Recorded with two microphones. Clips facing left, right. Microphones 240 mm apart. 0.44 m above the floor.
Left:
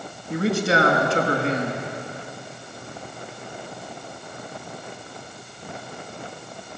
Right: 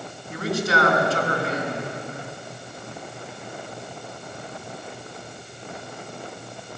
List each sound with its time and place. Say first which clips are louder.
0.3 s a man speaking: left 3 dB; 30° left (ahead or behind), 5.5 m